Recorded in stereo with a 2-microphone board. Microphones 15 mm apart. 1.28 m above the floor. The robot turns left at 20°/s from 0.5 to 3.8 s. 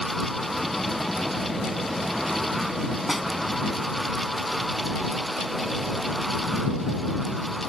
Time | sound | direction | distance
3.1 | a snare drum | 5° right (ahead or behind) | ?